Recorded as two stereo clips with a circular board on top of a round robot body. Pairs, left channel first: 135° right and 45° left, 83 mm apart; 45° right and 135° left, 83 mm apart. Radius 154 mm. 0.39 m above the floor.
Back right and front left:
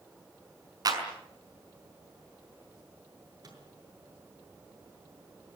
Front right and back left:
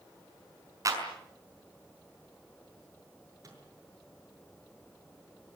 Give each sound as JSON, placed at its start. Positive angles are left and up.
{"t": 0.8, "sound": "a clap", "azimuth_deg": 85, "distance_m": 5.5}
{"t": 3.4, "sound": "a microwave", "azimuth_deg": 85, "distance_m": 7.0}